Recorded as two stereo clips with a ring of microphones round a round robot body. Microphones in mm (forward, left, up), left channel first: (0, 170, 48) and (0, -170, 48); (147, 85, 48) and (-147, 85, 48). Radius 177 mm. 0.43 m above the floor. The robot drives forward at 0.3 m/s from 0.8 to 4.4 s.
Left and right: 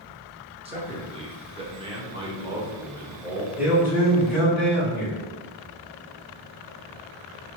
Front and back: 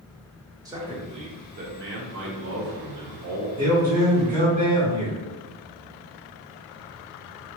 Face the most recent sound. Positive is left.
turn(degrees=-175)